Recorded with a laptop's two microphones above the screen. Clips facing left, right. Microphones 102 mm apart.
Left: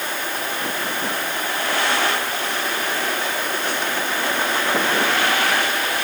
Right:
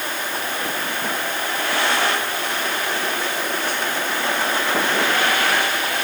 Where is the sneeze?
I don't hear a sneeze.